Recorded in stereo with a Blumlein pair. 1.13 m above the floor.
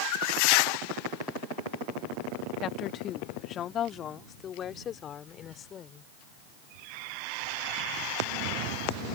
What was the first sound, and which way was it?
A woman speaking, 30° left.